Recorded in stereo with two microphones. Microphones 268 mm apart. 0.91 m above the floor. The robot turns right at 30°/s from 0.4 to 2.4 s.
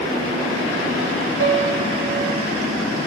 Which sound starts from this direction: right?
A piano, at 1.4 s.